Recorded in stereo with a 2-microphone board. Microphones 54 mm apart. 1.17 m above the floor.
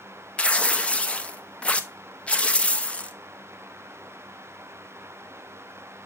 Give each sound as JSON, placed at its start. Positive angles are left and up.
{"t": 0.4, "sound": "tearing paper", "side_deg": 20, "distance_m": 0.6}